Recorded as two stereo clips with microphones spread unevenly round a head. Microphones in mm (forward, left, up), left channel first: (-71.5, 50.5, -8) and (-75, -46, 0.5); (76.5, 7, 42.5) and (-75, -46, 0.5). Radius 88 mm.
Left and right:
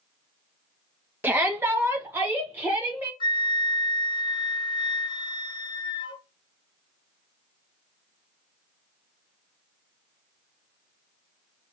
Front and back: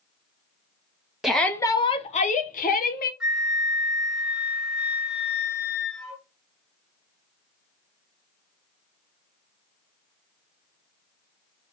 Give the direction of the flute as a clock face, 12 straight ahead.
8 o'clock.